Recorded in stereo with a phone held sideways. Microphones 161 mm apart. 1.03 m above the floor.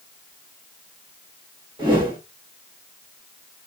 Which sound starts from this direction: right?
A whoosh, at 1.8 s.